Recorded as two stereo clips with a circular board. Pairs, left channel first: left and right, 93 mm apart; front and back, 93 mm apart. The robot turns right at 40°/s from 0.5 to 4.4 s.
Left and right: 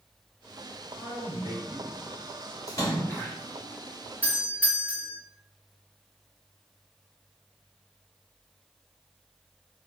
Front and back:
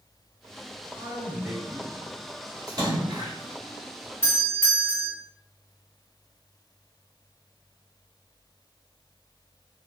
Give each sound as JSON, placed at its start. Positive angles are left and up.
{"t": 1.0, "sound": "a man speaking", "azimuth_deg": -130, "distance_m": 1.0}
{"t": 2.7, "sound": "a splash", "azimuth_deg": 135, "distance_m": 1.6}
{"t": 4.2, "sound": "a doorbell", "azimuth_deg": -35, "distance_m": 1.3}